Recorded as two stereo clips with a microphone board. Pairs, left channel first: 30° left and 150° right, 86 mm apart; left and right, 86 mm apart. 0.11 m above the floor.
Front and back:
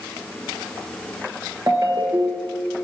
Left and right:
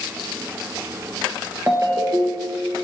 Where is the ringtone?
130° right, 1.5 m.